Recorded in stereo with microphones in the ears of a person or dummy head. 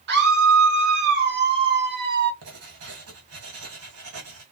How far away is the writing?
About 2 m.